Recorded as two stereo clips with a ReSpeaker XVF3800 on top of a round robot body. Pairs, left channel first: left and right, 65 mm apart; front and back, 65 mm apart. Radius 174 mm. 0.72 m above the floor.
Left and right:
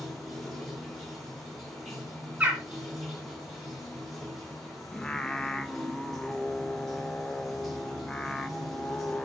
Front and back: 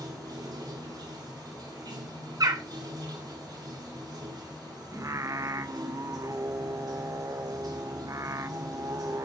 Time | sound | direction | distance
0.0 | running water | 175° left | 2.5 m
2.4 | a bird | 160° right | 1.7 m
4.9 | singing | 170° left | 0.9 m